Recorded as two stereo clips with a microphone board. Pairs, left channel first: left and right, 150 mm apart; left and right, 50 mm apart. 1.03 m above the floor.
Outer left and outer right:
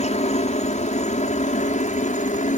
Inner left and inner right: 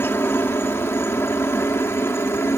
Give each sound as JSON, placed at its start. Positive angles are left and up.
{"t": 0.0, "sound": "a helicopter", "side_deg": 50}